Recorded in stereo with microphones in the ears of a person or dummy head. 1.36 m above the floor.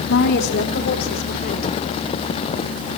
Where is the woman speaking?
70° left (ahead or behind), 3 m; by 1.9 s 60° left (ahead or behind), 5 m.